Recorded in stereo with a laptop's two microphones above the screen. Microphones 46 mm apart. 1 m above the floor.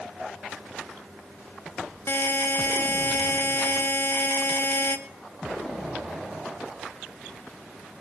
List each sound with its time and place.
2.1 s a buzzer: 60° left (ahead or behind), 0.8 m